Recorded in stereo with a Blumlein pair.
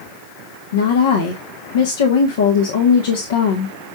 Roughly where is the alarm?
I don't hear an alarm.